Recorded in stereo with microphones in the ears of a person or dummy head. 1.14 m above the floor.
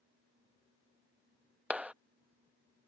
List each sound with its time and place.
1.7 s a clap: 10° right (ahead or behind)